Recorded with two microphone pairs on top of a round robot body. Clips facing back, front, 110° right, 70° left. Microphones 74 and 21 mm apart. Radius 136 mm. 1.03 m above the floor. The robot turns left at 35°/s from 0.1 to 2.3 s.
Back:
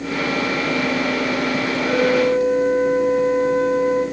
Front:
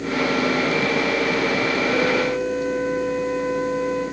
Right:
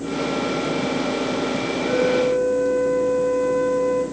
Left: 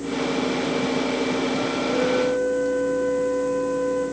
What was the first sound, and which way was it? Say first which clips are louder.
A flute: back 7 dB, right 4 dB; 110° right.